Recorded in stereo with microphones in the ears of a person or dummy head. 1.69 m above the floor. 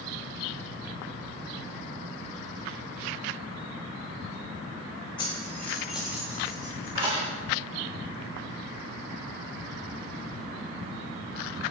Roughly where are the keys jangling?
Left.